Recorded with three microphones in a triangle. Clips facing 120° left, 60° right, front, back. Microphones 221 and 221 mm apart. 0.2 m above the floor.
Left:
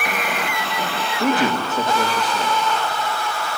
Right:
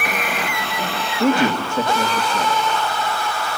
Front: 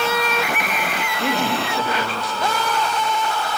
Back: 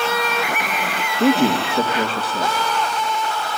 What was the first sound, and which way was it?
A man speaking, 135° right.